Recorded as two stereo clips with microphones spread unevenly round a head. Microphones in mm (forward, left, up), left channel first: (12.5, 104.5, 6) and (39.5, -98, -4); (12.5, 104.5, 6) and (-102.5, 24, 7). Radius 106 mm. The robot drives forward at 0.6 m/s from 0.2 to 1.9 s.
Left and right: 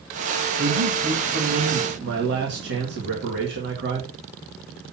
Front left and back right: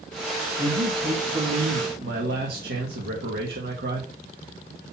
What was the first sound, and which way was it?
A man speaking, 105° right.